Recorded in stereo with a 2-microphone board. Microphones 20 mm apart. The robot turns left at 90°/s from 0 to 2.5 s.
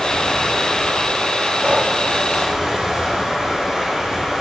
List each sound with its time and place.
0.0 s running water: 85° left, 2.0 m; by 4.4 s 140° right, 2.0 m
1.6 s breathing: 40° right (ahead or behind), 1.1 m; by 1.9 s 65° right (ahead or behind), 1.1 m